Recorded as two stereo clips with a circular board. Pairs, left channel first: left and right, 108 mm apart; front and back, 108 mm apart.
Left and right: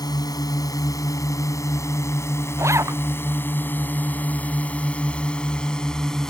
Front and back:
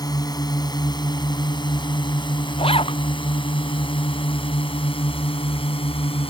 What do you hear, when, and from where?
0.0 s a drone: 45° left; by 6.3 s 5° left
2.6 s a zipper: 30° right